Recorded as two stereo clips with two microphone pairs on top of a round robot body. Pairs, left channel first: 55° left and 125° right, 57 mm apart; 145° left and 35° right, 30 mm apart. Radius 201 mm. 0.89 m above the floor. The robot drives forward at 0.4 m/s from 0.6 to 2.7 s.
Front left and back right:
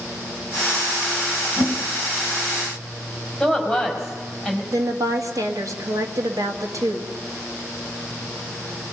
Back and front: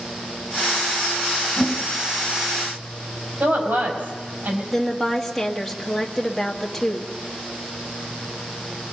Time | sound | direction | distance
1.6 | a whoosh | 135° right | 2 m
3.4 | a woman speaking | 30° right | 5 m
4.7 | a woman speaking | 125° right | 2 m